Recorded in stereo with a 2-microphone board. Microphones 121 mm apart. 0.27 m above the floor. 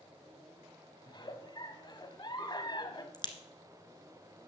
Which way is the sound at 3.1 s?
35° left (ahead or behind).